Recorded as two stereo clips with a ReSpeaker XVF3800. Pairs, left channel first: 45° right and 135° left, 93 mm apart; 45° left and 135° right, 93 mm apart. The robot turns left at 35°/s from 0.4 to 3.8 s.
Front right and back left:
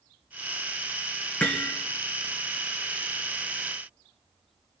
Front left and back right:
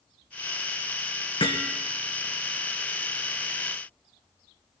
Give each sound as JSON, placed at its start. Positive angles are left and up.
{"t": 1.4, "sound": "hammering", "azimuth_deg": 30, "distance_m": 1.9}